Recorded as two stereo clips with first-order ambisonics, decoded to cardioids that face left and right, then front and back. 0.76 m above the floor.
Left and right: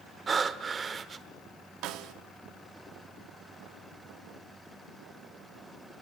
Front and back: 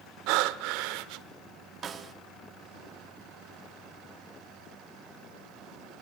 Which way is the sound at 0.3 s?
165° right.